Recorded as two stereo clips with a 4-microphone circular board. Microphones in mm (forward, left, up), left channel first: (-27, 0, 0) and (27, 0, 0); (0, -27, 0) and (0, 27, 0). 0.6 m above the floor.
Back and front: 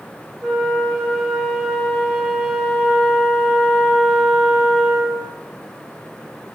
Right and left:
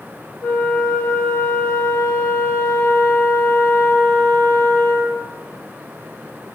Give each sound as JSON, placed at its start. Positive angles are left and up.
{"t": 0.4, "sound": "a flute", "azimuth_deg": -80, "distance_m": 0.7}